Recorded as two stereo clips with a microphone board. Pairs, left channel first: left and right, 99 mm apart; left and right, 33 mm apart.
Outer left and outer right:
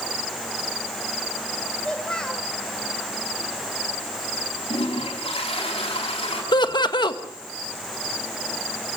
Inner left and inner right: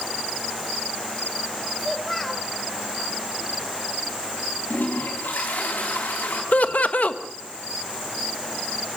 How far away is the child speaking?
About 3 m.